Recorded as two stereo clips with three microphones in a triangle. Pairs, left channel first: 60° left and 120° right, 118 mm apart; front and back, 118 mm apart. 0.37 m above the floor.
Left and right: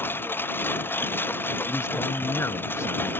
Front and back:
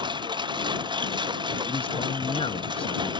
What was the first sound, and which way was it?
A lawn mower, 130° left.